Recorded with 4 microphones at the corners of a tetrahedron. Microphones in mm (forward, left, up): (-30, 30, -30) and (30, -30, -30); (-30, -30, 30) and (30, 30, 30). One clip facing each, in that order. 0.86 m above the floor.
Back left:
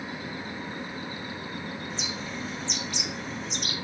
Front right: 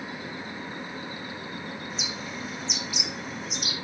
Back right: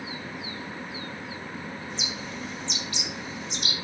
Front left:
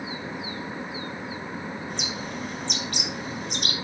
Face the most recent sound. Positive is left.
turn(degrees=40)